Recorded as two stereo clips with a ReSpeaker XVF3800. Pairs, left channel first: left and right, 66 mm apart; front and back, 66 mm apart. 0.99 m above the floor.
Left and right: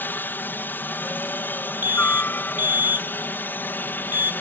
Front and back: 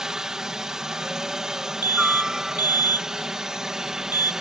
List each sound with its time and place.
0.0 s a helicopter: 105° left
1.8 s an alarm: 25° right